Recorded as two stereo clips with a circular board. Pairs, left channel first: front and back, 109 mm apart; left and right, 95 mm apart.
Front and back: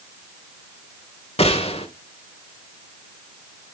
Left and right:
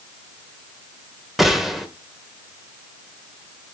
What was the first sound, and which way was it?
A gunshot, straight ahead.